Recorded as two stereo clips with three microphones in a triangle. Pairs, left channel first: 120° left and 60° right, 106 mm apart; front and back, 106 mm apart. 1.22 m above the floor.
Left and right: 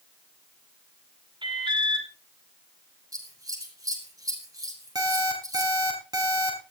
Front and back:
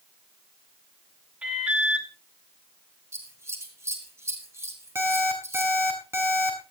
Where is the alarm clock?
115° right, 5.5 m.